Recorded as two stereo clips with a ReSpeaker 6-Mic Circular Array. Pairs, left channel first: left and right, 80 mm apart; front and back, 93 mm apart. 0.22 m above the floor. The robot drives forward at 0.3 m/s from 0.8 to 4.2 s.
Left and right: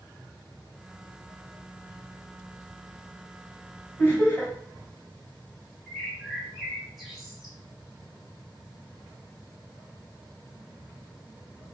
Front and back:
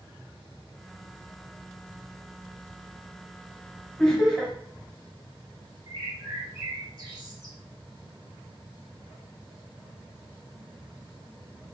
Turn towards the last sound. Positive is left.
turn(degrees=-175)